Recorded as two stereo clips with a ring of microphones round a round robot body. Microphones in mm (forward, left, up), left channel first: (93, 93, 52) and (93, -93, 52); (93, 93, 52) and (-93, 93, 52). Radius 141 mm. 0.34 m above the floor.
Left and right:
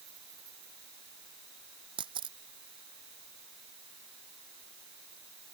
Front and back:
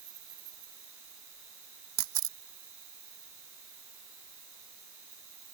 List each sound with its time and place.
0.0 s an insect: 160° right
2.0 s a camera shutter: 165° right